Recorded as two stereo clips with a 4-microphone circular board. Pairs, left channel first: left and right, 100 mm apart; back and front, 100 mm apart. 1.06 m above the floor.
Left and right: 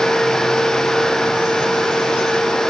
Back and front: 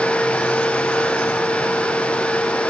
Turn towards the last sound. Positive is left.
No sound to turn to.